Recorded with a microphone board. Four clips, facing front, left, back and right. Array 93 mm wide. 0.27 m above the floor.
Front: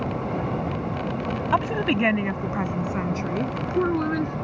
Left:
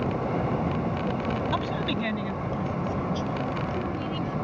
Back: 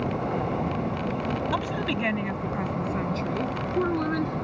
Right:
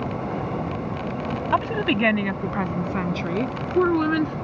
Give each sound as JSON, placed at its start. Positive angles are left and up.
{"t": 1.5, "sound": "a woman speaking", "azimuth_deg": -50}